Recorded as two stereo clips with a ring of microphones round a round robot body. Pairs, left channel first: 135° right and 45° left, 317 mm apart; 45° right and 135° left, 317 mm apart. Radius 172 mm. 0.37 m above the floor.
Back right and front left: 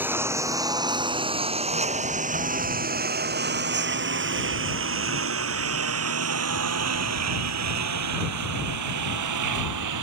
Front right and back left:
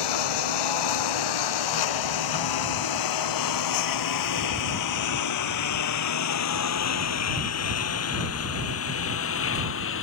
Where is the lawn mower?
40° right; by 10.0 s 10° left.